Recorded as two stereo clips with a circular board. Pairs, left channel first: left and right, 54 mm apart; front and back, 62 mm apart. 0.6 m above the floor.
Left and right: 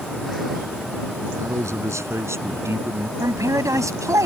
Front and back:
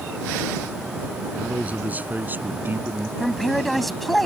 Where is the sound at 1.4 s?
115° right; by 3.1 s 130° right.